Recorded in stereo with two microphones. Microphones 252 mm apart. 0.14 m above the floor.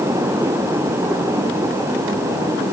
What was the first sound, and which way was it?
Only background noise.